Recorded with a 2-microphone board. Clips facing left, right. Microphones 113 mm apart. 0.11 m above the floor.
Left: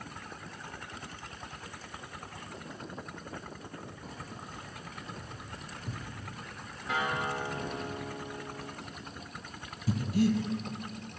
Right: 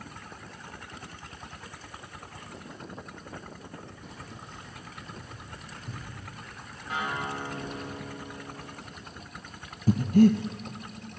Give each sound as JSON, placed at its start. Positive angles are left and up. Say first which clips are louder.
{"t": 4.0, "sound": "keys jangling", "louder": "left 1 dB", "side_deg": 40, "distance_m": 3.0}
{"t": 6.9, "sound": "a guitar", "louder": "left 1 dB", "side_deg": 85, "distance_m": 7.0}
{"t": 9.9, "sound": "breathing", "louder": "right 8 dB", "side_deg": -50, "distance_m": 0.9}